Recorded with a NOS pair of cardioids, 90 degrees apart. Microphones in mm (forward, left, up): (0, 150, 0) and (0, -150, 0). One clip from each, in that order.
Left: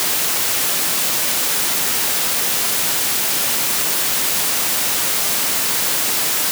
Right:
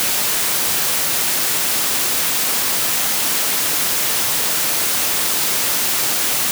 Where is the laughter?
No laughter in this recording.